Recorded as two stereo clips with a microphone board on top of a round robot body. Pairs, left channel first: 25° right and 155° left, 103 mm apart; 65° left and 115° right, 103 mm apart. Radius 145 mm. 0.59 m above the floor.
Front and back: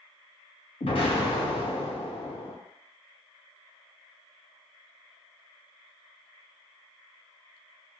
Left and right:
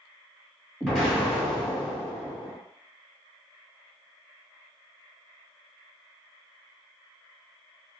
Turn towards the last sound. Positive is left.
turn(degrees=-20)